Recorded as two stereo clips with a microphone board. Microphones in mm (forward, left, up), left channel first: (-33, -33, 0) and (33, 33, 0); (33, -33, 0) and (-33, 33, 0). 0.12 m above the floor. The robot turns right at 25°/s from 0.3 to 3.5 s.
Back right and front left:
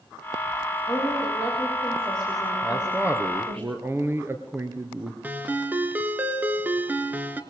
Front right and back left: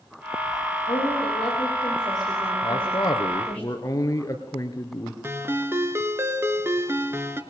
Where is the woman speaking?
35° right, 9 m; by 3.6 s 30° left, 9 m.